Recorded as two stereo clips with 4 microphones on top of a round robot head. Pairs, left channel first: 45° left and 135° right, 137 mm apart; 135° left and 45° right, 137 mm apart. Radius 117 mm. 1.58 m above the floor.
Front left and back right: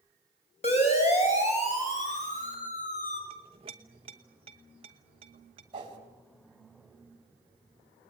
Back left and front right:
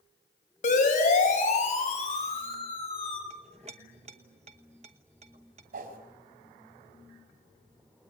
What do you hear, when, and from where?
0.6 s a siren: 95° left, 7.5 m; by 3.2 s 80° left, 7.5 m
3.3 s a clink: 90° right, 0.9 m
5.7 s a whoosh: 75° right, 4 m